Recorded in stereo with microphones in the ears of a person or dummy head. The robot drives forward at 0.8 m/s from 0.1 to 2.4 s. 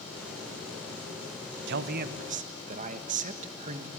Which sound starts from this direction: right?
A man speaking, at 1.7 s.